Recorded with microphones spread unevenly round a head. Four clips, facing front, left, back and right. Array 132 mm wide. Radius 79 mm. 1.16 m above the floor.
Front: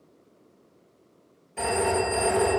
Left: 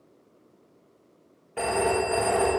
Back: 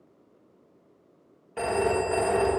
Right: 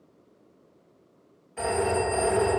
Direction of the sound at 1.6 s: 135° left.